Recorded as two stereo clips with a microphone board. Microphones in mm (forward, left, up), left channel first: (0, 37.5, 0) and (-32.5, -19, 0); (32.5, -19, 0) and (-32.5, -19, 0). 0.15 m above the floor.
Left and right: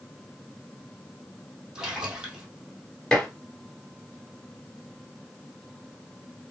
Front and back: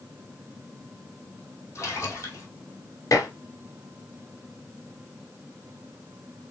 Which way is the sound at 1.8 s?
40° right.